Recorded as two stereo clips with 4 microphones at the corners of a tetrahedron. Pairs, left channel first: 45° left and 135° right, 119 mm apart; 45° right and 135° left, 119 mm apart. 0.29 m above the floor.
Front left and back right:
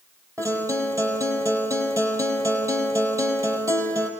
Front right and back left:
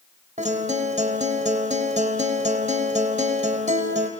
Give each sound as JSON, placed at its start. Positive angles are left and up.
{"t": 0.4, "sound": "a guitar", "azimuth_deg": 160, "distance_m": 4.5}